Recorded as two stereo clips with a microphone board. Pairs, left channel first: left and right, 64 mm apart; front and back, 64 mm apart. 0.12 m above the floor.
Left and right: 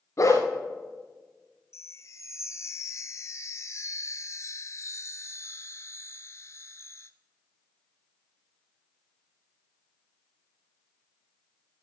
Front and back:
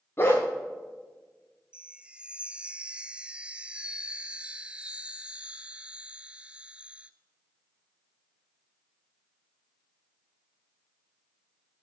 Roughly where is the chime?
Left.